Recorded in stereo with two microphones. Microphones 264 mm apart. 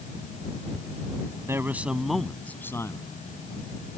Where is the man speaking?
10° right (ahead or behind); by 3.0 s 15° left (ahead or behind).